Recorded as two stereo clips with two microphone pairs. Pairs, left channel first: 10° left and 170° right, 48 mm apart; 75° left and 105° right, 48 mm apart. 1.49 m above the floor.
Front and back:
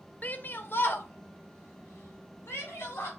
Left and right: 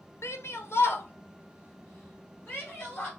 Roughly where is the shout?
Ahead left.